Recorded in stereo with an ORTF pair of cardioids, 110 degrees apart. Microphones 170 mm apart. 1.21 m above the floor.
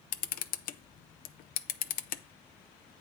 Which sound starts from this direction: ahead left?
A camera shutter, at 0.1 s.